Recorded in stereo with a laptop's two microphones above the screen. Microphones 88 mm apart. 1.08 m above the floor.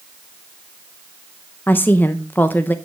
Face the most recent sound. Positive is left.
turn(degrees=20)  # may be behind; listen again after turning